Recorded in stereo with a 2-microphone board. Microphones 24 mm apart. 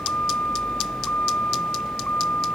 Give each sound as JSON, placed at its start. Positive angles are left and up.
{"t": 0.0, "sound": "a vehicle", "side_deg": 85}